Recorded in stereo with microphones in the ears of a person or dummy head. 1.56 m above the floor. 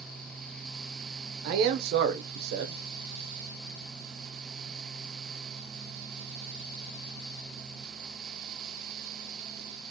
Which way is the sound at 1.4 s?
60° right (ahead or behind).